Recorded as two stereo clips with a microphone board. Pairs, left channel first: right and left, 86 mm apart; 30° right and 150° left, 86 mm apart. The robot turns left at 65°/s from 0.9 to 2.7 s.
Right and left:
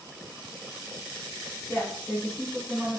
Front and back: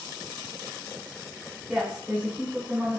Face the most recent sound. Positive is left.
turn(degrees=160)